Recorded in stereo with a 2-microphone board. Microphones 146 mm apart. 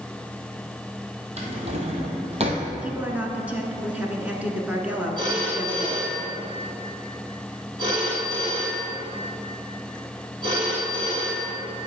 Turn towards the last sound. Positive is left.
turn(degrees=-30)  # may be behind; listen again after turning